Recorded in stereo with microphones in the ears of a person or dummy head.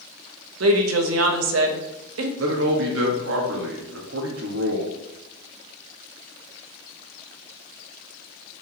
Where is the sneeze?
I don't hear a sneeze.